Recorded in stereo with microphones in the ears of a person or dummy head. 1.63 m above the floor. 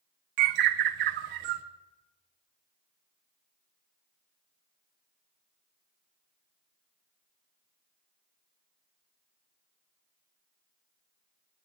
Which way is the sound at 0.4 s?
40° right (ahead or behind).